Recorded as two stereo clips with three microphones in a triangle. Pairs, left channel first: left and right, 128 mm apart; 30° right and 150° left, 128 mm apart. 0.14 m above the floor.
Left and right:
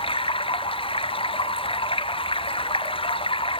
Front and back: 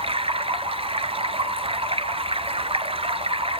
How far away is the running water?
About 1.0 m.